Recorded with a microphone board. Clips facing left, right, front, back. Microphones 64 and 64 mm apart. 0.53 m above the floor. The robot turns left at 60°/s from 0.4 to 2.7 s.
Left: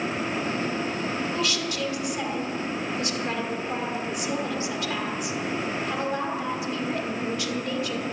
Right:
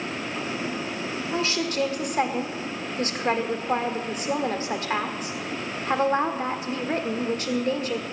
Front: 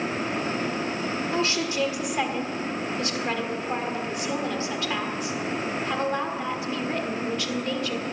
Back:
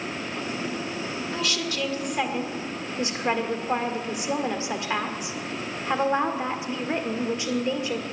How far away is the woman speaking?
About 1.6 m.